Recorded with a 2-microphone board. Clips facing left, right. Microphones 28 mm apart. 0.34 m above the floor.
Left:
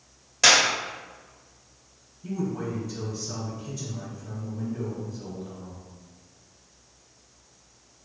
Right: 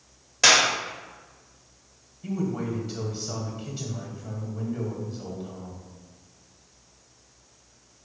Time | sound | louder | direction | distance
0.4 | a clap | even | 10° right (ahead or behind) | 0.8 m
2.2 | a man speaking | right 1 dB | 50° right (ahead or behind) | 1.5 m